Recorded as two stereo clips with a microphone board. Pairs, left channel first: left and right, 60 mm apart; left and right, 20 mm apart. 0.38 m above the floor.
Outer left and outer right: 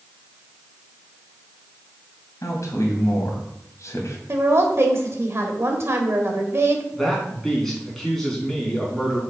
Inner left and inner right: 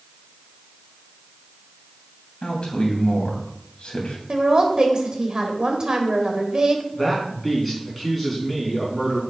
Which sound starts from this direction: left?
A man speaking, at 2.4 s.